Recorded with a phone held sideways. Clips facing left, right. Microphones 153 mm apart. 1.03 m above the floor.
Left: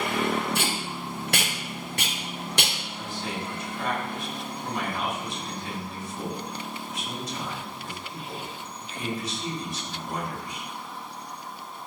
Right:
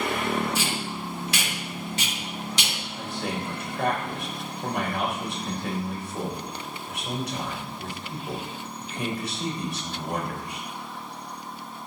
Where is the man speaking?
75° right (ahead or behind), 4 m.